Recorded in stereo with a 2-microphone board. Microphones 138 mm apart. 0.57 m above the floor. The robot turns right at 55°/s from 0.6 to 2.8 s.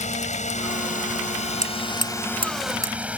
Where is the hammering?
85° right; by 2.9 s 25° right (ahead or behind).